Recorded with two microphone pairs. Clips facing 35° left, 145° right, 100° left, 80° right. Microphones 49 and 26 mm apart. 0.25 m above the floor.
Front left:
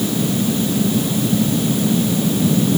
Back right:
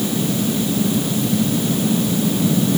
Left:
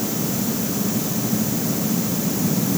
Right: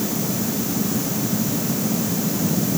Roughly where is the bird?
No bird in this recording.